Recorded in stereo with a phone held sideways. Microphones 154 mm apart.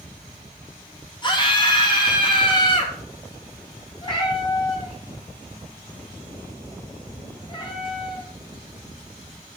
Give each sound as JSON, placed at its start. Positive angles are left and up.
{"t": 1.2, "sound": "a scream", "side_deg": 30, "distance_m": 2.5}
{"t": 4.0, "sound": "a cat meowing", "side_deg": 35, "distance_m": 2.5}